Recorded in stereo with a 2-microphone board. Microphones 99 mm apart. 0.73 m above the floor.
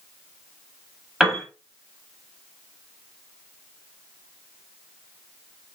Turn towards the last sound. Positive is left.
turn(degrees=-5)  # may be behind; listen again after turning